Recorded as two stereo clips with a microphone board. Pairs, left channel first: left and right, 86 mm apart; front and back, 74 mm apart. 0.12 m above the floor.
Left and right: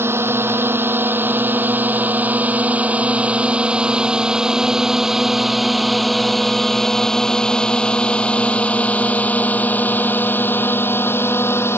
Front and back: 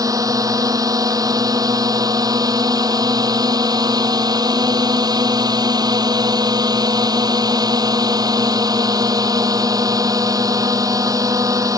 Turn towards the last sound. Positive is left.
turn(degrees=150)